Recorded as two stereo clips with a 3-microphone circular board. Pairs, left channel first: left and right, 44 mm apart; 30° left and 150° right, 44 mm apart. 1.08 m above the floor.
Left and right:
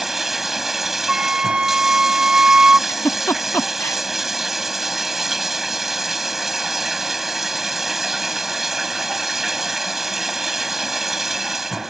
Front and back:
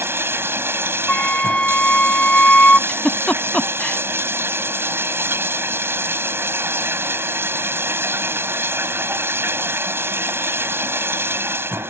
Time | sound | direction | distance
0.0 | running water | 175° right | ?
1.1 | a flute | 25° right | ?
2.9 | a giggle | 95° left | ?